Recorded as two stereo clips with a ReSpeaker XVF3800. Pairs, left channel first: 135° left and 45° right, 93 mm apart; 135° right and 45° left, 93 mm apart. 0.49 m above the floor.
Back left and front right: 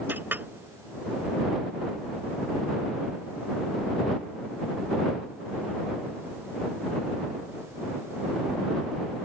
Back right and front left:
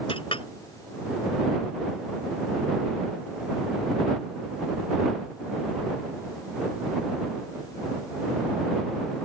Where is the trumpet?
I don't hear a trumpet.